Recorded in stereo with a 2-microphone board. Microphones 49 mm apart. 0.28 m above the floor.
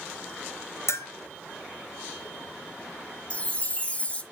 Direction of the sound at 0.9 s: 70° left (ahead or behind).